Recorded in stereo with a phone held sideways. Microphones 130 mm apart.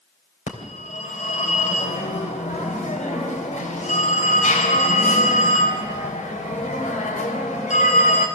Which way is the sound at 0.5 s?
70° left (ahead or behind).